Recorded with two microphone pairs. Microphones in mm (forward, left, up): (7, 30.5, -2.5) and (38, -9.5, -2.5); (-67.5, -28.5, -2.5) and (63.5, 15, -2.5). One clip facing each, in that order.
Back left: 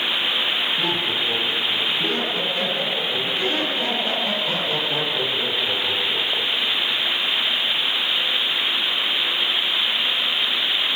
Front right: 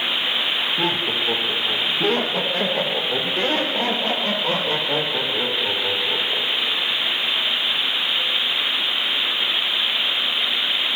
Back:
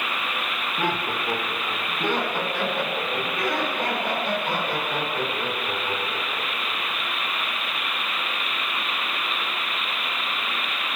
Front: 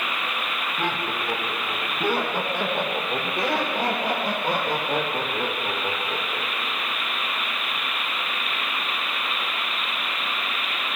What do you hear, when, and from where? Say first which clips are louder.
0.8 s laughter: front right 1 dB, back 2 dB; 85° right, 3.5 m; by 7.0 s 10° right, 6.5 m